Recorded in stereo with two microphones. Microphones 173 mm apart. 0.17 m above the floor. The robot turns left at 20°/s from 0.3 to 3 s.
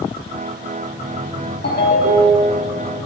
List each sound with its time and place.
1.6 s a ringtone: 70° left (ahead or behind), 3.5 m; by 2.6 s 80° left, 3.5 m